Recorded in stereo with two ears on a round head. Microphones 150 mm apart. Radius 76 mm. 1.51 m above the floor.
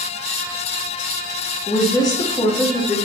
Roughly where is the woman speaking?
Left.